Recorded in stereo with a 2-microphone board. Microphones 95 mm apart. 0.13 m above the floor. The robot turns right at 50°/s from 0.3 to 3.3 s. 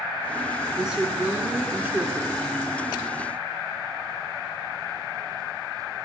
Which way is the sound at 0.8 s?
5° right (ahead or behind).